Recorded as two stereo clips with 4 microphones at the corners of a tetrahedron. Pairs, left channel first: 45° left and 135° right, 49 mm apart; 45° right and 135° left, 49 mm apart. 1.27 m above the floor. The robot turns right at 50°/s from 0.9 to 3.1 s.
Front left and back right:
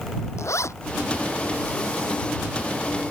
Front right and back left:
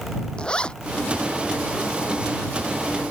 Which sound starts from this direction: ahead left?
A zipper, at 0.4 s.